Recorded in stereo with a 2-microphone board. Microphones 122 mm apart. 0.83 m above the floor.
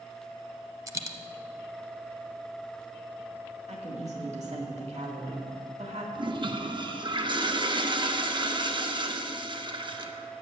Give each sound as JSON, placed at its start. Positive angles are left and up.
{"t": 0.9, "sound": "a dropped coin", "side_deg": -25, "distance_m": 0.7}
{"t": 3.7, "sound": "a woman speaking", "side_deg": -65, "distance_m": 2.0}
{"t": 6.2, "sound": "a toilet flushing", "side_deg": -40, "distance_m": 0.7}